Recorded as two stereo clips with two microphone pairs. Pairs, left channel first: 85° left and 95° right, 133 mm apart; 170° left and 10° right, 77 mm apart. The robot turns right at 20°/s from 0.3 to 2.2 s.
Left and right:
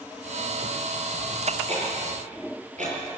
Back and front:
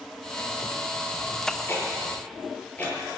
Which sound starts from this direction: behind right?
Ticking, at 1.7 s.